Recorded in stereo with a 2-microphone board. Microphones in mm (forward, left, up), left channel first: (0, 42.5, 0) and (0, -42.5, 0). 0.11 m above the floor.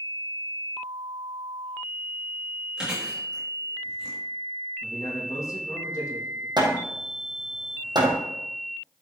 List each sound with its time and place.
2.8 s chewing: 5° right (ahead or behind), 6 m
4.8 s a man speaking: 45° left (ahead or behind), 5.5 m
6.6 s hammering: 65° right (ahead or behind), 2.5 m